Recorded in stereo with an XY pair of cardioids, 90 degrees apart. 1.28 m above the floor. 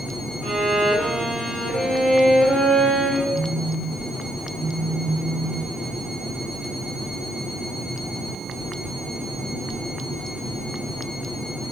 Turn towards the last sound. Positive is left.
turn(degrees=65)